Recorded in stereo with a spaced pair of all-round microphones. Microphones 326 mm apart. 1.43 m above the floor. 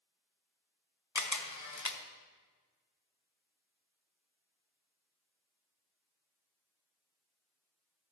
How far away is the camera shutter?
About 0.8 m.